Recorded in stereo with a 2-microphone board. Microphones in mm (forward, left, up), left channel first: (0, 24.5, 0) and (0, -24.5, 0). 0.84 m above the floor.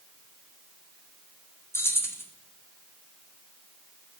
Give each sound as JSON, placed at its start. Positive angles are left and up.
{"t": 1.7, "sound": "keys jangling", "side_deg": 60, "distance_m": 0.8}